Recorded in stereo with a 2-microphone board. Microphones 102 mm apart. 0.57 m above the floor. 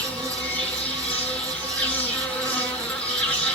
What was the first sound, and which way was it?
An insect, 10° left (ahead or behind).